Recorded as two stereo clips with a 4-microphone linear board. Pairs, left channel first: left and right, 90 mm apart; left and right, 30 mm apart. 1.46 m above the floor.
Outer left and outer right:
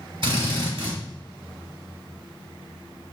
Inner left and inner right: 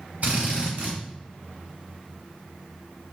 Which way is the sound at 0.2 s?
65° right (ahead or behind).